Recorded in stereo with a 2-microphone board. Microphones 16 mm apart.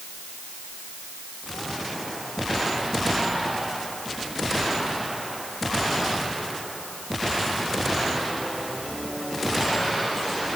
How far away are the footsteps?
I don't hear footsteps.